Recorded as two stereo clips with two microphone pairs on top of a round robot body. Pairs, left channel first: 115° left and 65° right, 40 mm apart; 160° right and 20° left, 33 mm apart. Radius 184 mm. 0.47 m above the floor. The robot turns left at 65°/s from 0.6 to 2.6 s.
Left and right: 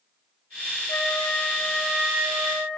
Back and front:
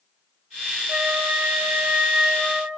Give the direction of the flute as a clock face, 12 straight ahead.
10 o'clock.